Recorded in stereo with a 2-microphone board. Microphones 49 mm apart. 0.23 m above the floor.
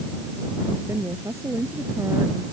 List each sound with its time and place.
0.9 s a woman speaking: 70° right (ahead or behind)